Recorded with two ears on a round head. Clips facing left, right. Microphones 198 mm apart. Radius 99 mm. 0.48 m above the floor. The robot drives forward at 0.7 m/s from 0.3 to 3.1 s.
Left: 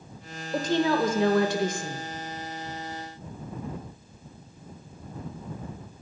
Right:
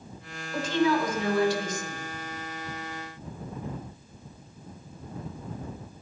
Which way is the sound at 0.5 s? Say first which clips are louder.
Left 1 dB; 30° left (ahead or behind).